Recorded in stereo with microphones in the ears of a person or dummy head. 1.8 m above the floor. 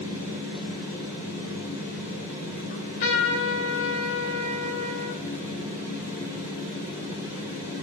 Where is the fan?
50° left (ahead or behind), 6.5 m.